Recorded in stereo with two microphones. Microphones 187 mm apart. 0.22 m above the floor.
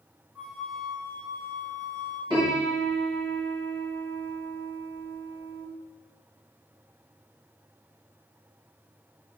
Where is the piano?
25° right (ahead or behind), 2 m.